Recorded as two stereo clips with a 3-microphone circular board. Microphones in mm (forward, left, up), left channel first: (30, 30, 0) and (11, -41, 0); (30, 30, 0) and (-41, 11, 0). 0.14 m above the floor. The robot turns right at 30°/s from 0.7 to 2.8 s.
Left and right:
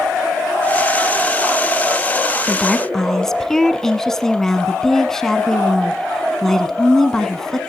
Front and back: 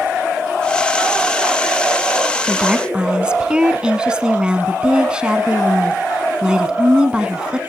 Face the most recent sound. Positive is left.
turn(degrees=145)